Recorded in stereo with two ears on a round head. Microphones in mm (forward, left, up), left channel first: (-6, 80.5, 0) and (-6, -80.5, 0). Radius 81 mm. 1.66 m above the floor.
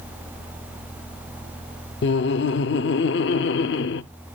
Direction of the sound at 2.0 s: 65° left (ahead or behind).